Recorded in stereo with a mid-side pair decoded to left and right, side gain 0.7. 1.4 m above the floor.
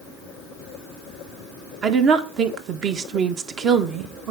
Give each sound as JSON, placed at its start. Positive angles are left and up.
{"t": 1.8, "sound": "a woman speaking", "azimuth_deg": -40, "distance_m": 1.3}